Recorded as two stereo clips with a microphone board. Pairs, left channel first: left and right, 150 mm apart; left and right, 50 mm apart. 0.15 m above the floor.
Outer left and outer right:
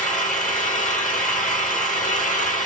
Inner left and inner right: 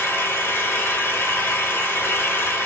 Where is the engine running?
55° left (ahead or behind), 1.0 m.